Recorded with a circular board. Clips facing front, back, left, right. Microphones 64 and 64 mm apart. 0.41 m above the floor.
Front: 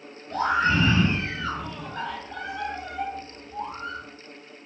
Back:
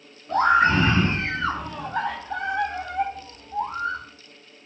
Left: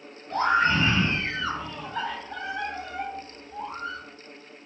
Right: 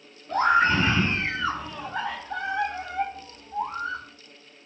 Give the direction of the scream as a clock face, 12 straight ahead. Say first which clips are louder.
Back 5 dB, right 2 dB; 6 o'clock.